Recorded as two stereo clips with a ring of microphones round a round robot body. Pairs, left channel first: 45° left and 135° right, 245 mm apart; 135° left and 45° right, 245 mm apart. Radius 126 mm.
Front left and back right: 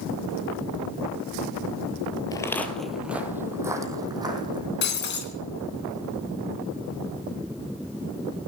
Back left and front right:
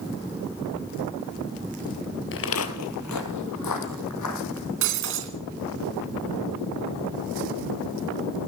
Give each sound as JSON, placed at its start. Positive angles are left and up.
{"t": 2.3, "sound": "footsteps", "azimuth_deg": 115, "distance_m": 1.2}
{"t": 4.8, "sound": "breaking glass", "azimuth_deg": -5, "distance_m": 3.5}